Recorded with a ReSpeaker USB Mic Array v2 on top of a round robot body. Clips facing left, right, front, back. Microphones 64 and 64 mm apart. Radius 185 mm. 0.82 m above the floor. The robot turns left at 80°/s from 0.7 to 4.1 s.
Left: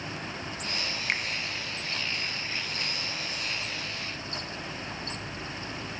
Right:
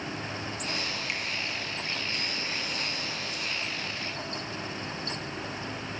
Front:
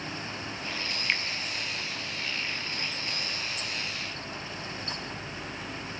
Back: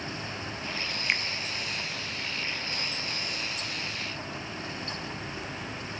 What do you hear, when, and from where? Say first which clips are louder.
1.1 s a finger snap: left 7 dB, back 1 dB; 110° left, 0.8 m; by 1.2 s 95° left, 0.8 m